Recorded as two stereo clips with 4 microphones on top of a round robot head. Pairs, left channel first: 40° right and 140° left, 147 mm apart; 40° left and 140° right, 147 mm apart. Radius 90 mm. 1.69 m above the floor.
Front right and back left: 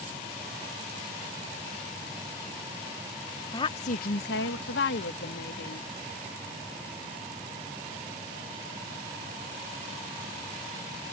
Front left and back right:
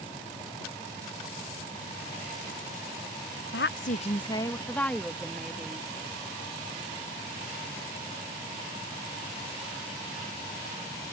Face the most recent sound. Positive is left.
turn(degrees=-55)